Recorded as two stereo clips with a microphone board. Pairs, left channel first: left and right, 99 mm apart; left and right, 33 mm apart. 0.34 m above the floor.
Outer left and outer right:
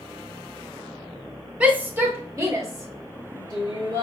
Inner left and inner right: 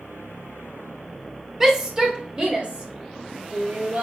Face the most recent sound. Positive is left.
turn(degrees=-55)  # may be behind; listen again after turning